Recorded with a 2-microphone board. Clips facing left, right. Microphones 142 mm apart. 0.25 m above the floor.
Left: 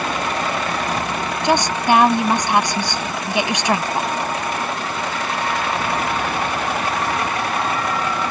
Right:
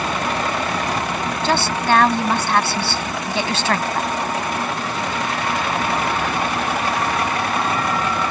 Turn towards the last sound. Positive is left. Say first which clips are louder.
# left 2 dB
turn(degrees=15)  # may be behind; listen again after turning